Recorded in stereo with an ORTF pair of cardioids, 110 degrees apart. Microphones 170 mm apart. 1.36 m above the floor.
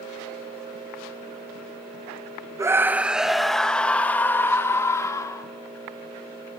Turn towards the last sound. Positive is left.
turn(degrees=20)